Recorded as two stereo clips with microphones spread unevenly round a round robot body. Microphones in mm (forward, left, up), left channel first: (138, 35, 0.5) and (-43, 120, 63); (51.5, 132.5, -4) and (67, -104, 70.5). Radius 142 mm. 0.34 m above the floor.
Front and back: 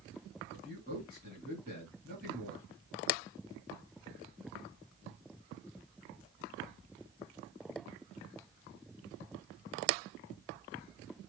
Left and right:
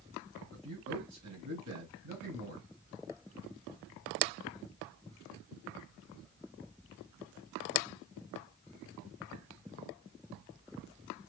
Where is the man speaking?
145° right, 2 m.